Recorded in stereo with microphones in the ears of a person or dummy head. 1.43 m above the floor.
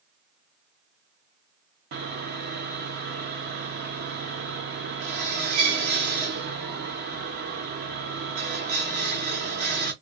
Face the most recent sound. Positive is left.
turn(degrees=-50)  # may be behind; listen again after turning